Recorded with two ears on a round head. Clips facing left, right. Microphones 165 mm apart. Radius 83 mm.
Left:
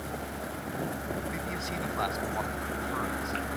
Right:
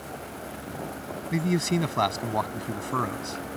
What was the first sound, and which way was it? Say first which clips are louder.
A man speaking: right 10 dB; 65° right (ahead or behind).